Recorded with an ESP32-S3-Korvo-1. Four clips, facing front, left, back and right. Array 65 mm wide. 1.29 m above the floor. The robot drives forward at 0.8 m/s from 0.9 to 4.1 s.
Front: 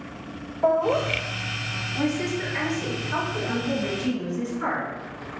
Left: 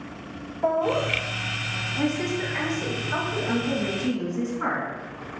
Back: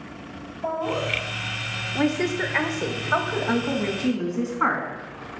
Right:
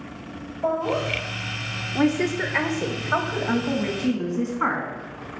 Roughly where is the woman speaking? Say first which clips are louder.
Right 5 dB, back 3 dB; behind right.